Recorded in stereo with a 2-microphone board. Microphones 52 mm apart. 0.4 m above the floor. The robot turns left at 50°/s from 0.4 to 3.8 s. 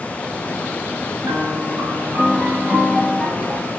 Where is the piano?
95° right, 9 m; by 3.7 s 145° left, 9 m.